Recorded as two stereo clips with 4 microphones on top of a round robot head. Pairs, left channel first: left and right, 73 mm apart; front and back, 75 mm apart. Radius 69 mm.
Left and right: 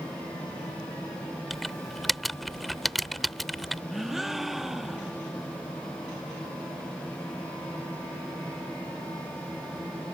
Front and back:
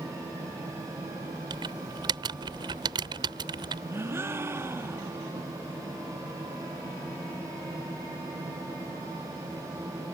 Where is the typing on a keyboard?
Straight behind.